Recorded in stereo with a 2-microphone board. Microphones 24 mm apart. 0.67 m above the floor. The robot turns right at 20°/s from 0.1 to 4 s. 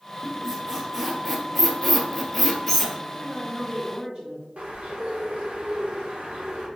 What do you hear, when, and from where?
0.2 s a squeak: 25° right (ahead or behind), 0.8 m; by 2.9 s 10° left (ahead or behind), 0.8 m
3.0 s a woman speaking: 55° right (ahead or behind), 1.5 m; by 4.5 s 45° right (ahead or behind), 1.5 m
4.6 s a bird: 65° right (ahead or behind), 1.2 m